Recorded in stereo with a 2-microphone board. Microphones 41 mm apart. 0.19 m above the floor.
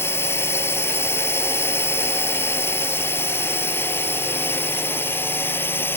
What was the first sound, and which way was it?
A drone, 70° left (ahead or behind).